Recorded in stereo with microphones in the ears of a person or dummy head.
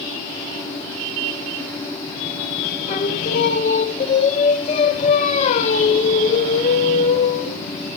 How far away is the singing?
About 1.1 m.